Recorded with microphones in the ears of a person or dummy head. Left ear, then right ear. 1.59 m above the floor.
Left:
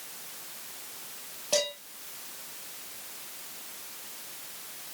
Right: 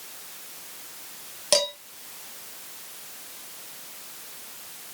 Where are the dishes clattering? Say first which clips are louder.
Right 5 dB; 60° right (ahead or behind), 1.5 m.